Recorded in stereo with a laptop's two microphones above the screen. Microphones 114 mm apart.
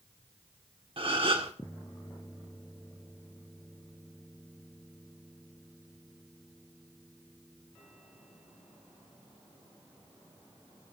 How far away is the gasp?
About 1.6 m.